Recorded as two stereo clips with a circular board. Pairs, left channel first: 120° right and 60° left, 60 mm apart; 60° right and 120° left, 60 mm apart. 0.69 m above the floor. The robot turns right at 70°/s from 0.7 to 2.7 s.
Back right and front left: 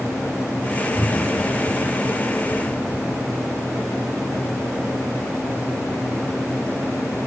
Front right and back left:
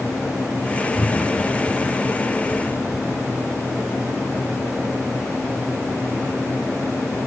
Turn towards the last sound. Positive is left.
turn(degrees=85)